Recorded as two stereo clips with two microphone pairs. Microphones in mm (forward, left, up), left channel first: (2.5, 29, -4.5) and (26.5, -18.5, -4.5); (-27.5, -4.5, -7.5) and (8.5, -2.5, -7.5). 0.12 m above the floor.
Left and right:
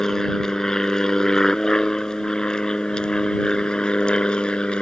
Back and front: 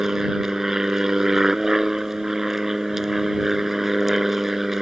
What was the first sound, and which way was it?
An aircraft, 55° left.